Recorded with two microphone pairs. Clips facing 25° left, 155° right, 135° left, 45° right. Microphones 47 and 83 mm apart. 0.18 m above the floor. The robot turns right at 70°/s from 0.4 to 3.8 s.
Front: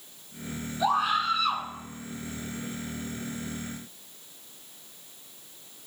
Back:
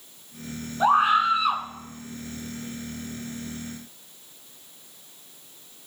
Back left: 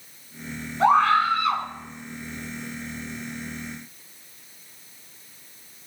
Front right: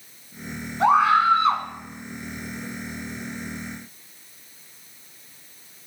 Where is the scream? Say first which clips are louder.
Back 6 dB, front right 1 dB; 135° right, 1.9 m; by 1.6 s 75° right, 1.9 m.